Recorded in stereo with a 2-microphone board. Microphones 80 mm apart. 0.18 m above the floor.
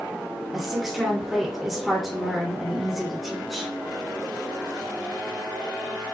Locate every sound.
0.5 s a woman speaking: 5° right (ahead or behind), 1.6 m